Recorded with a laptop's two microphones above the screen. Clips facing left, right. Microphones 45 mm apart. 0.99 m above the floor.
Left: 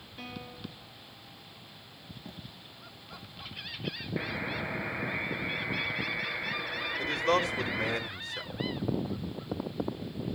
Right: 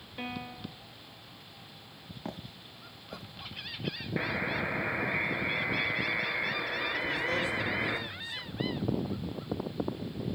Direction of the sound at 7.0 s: 60° left (ahead or behind).